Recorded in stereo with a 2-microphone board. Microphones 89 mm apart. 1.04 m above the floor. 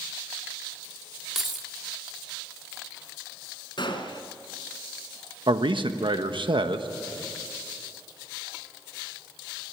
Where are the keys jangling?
5° right (ahead or behind), 1.5 m.